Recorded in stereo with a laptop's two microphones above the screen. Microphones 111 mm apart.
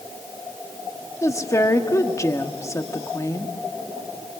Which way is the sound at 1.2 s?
30° left (ahead or behind).